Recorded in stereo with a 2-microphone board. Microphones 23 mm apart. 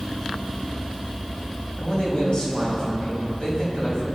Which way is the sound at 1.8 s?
45° left (ahead or behind).